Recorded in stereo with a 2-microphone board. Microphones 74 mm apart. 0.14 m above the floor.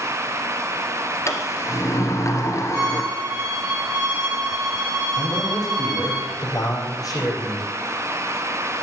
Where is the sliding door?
40° left (ahead or behind), 1.6 m.